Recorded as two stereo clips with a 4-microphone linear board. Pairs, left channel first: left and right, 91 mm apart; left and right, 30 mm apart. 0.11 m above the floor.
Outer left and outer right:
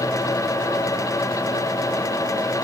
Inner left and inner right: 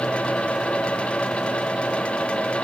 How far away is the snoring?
I don't hear snoring.